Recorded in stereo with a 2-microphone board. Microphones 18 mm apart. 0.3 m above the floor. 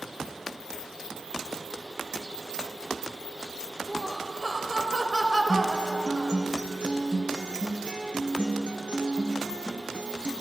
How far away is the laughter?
About 0.9 m.